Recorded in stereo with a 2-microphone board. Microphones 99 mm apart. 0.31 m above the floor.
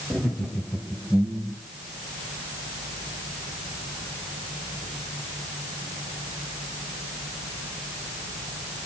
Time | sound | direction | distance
0.1 | laughter | 15° left (ahead or behind) | 1.8 m